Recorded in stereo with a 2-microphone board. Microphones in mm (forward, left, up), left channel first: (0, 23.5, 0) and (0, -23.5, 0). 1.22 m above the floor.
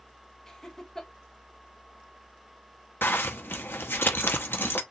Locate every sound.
0.5 s laughter: 15° left (ahead or behind), 1.5 m
3.0 s a zipper: 50° left (ahead or behind), 1.0 m